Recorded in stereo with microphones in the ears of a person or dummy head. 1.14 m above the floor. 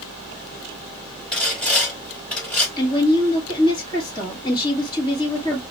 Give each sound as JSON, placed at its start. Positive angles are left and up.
{"t": 1.3, "sound": "sawing", "side_deg": 5, "distance_m": 2.0}
{"t": 2.8, "sound": "a woman speaking", "side_deg": 25, "distance_m": 1.8}